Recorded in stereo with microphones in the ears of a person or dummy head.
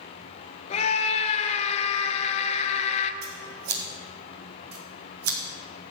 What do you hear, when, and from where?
0.7 s a scream: 30° left (ahead or behind), 0.7 m
3.2 s scissors: 75° right (ahead or behind), 1.9 m